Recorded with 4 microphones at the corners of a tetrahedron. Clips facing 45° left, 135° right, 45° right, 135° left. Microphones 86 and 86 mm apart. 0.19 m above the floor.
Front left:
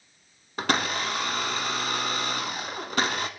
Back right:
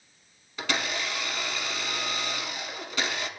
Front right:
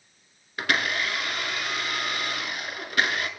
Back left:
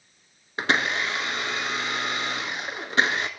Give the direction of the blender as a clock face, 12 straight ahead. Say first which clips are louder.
Front left 4 dB, back left 2 dB; 9 o'clock.